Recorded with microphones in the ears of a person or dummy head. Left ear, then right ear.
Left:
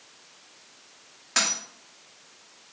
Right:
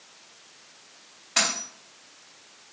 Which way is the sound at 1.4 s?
50° left (ahead or behind).